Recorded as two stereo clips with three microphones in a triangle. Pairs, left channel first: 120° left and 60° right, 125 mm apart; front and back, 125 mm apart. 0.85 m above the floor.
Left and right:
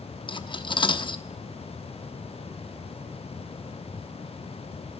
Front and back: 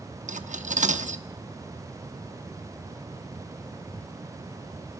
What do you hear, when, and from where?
0.3 s cutlery clinking: 170° left, 0.8 m